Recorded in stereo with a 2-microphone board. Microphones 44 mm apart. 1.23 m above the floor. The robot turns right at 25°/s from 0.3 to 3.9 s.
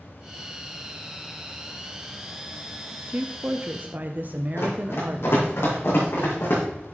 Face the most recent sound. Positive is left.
turn(degrees=65)  # may be behind; listen again after turning